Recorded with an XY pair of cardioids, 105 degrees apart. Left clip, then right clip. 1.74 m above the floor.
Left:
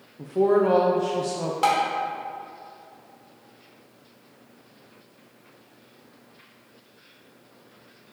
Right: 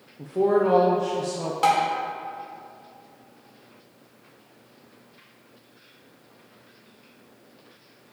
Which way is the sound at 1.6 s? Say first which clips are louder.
Right 1 dB; straight ahead.